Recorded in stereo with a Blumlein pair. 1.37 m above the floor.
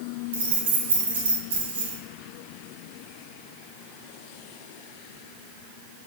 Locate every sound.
0.3 s keys jangling: 70° right, 1.3 m